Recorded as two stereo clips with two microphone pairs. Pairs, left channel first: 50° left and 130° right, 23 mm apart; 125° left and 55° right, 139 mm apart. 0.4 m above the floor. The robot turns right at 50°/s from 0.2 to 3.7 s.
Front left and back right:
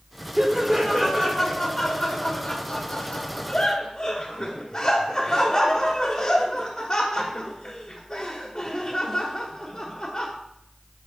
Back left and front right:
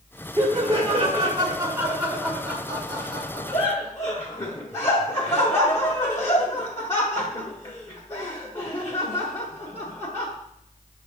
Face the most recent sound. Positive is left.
turn(degrees=75)